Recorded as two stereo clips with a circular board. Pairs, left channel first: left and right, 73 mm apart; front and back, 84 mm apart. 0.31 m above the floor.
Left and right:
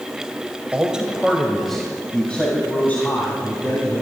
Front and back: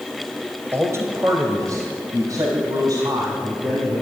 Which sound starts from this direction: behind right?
A man speaking, at 0.7 s.